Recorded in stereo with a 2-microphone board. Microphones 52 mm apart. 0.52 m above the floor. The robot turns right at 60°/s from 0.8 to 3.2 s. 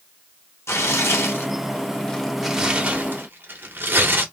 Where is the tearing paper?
65° left (ahead or behind), 0.9 m; by 4.2 s 45° right (ahead or behind), 0.9 m.